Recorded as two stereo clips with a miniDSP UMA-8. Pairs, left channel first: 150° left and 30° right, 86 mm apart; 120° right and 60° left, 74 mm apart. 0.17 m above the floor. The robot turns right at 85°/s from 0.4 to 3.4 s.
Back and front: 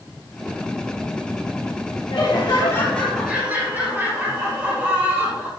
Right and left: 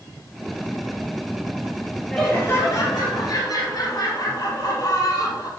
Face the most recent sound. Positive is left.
turn(degrees=-100)